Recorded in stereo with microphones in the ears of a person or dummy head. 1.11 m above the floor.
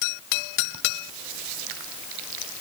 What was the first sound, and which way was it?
Only background noise.